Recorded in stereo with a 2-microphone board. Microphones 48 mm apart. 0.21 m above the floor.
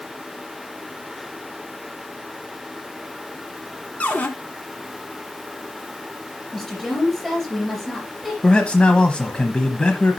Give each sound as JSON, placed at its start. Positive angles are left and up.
{"t": 4.0, "sound": "a cupboard door", "side_deg": 30, "distance_m": 1.2}
{"t": 6.5, "sound": "a woman speaking", "side_deg": 5, "distance_m": 3.5}
{"t": 8.4, "sound": "a man speaking", "side_deg": 20, "distance_m": 1.0}